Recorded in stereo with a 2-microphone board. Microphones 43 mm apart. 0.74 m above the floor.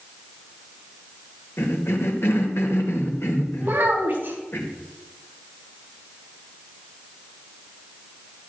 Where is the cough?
70° left (ahead or behind), 3 m.